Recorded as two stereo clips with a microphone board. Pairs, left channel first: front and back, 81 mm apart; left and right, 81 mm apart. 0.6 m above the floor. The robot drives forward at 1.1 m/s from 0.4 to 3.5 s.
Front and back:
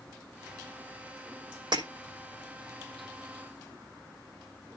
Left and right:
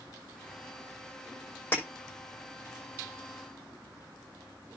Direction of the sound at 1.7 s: 155° left.